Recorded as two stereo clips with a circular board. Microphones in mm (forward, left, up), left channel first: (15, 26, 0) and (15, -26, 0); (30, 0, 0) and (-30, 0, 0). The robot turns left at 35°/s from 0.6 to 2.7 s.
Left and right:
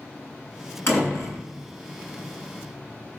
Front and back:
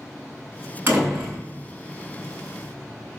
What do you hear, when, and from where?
0.9 s a door slam: 125° left, 7 m; by 1.4 s 110° left, 7 m